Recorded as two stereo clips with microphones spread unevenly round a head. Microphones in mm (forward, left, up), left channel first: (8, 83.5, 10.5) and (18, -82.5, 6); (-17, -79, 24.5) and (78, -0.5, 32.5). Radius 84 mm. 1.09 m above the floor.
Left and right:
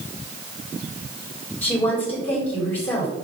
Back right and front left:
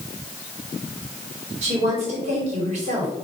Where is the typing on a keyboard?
I don't hear typing on a keyboard.